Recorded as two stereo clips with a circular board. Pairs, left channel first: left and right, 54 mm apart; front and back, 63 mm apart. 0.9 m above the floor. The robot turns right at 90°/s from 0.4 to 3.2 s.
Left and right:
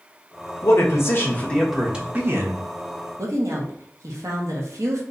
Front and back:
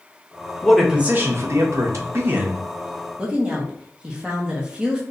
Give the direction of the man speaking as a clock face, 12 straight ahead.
9 o'clock.